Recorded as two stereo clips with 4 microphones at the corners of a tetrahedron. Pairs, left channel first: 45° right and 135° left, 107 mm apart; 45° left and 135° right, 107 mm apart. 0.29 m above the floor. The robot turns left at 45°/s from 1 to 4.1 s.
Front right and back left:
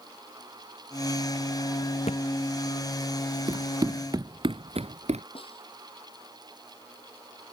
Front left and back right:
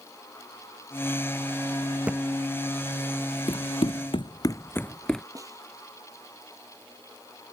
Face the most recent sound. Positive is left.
turn(degrees=-75)